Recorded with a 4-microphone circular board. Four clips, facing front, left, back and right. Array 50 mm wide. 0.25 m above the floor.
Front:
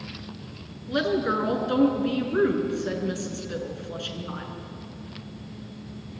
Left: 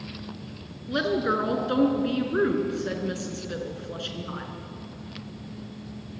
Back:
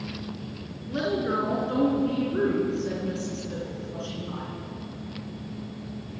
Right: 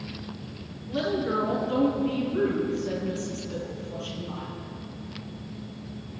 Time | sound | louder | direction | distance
0.9 | a woman speaking | left 2 dB, front 2 dB | 55° left | 4 m